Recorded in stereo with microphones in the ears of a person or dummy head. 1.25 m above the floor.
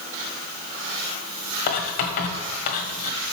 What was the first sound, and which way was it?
Writing, 50° left (ahead or behind).